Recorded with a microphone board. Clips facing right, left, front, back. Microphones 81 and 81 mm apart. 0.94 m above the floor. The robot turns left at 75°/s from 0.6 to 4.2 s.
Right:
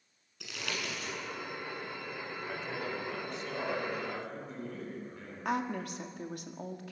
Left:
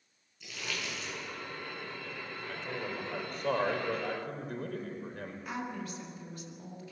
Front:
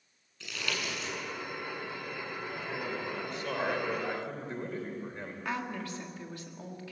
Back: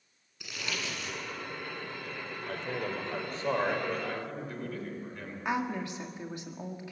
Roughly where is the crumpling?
Right.